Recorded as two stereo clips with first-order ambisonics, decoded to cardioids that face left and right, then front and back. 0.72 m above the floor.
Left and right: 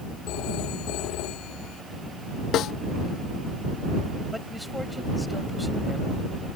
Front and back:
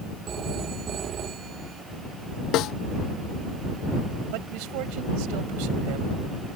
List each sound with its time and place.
0.3 s a phone ringing: 120° left
2.5 s a snare drum: 40° left
4.3 s a man speaking: straight behind